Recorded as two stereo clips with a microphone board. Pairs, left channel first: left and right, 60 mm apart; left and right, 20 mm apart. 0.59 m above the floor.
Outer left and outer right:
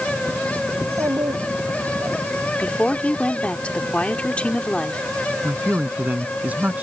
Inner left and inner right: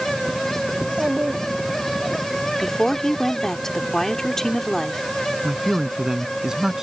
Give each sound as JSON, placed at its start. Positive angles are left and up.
{"t": 0.8, "sound": "a child speaking", "side_deg": -70}
{"t": 2.6, "sound": "a woman speaking", "side_deg": 20}
{"t": 5.4, "sound": "a man speaking", "side_deg": -30}